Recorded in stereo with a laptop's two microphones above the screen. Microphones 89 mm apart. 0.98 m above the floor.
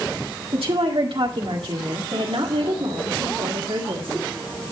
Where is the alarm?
I don't hear an alarm.